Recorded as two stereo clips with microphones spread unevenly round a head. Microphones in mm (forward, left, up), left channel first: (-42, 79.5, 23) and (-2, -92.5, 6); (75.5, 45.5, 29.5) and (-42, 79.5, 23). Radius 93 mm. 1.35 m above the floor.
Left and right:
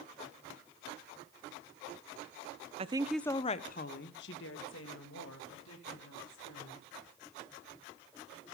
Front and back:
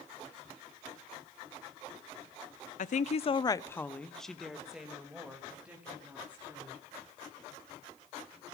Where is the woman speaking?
25° right, 0.8 m; by 6.8 s 90° left, 4.5 m.